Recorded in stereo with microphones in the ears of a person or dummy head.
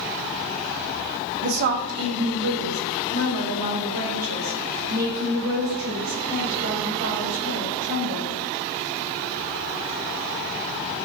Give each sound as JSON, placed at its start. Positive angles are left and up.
{"t": 1.4, "sound": "a woman speaking", "side_deg": -55, "distance_m": 1.0}